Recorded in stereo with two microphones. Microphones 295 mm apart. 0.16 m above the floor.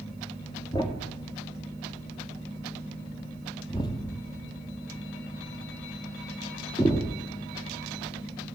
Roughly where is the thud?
Centre.